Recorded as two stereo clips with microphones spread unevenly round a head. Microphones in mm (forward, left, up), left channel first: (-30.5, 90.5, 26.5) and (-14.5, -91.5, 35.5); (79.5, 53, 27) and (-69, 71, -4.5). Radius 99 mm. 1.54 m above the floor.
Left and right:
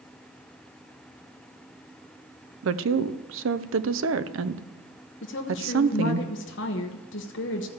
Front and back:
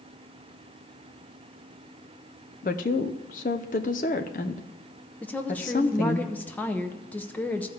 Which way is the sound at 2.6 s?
60° right.